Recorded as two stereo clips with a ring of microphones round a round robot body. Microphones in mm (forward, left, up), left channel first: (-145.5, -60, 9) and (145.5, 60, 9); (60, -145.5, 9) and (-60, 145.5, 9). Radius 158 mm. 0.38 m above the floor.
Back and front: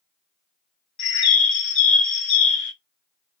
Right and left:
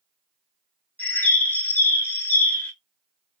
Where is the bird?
150° right, 0.8 m.